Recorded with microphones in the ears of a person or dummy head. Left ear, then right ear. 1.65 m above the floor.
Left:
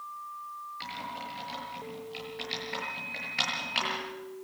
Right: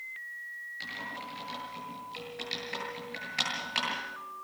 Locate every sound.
0.8 s typing on a keyboard: 10° right (ahead or behind), 8.5 m